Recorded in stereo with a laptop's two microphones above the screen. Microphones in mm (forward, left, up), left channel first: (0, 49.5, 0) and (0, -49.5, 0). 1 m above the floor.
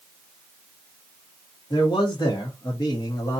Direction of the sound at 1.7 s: 55° left (ahead or behind).